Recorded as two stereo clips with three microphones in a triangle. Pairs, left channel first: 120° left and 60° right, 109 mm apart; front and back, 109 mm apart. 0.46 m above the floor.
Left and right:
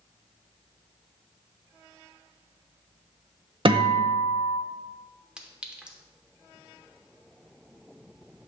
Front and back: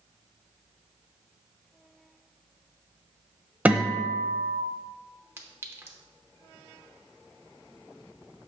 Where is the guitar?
105° right, 0.6 m.